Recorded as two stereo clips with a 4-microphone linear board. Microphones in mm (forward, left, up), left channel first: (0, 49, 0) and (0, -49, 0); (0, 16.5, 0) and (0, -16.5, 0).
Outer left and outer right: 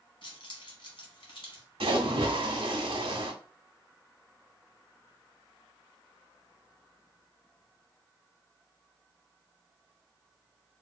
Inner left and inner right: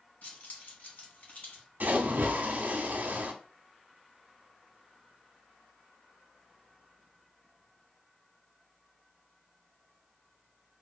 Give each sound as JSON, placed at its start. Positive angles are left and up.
{"t": 0.2, "sound": "keys jangling", "side_deg": 60, "distance_m": 1.3}
{"t": 1.8, "sound": "a splash", "side_deg": -65, "distance_m": 0.7}